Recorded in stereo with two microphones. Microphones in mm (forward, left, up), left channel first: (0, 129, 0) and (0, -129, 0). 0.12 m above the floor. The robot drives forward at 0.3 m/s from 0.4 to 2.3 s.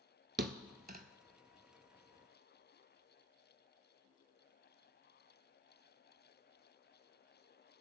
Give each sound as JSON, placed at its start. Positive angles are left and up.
{"t": 0.4, "sound": "a thud", "side_deg": -45, "distance_m": 0.7}